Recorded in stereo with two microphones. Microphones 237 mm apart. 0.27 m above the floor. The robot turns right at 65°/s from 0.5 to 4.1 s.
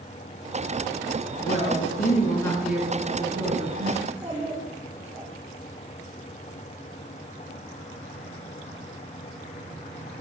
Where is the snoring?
No snoring in this recording.